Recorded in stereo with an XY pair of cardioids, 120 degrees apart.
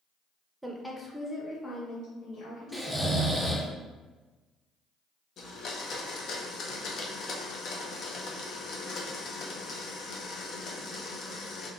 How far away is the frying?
I don't hear frying.